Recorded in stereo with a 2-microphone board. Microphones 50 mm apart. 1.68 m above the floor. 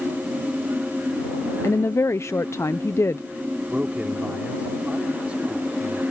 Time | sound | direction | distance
1.6 | a woman speaking | 65° left (ahead or behind) | ?
3.7 | a man speaking | 25° right (ahead or behind) | ?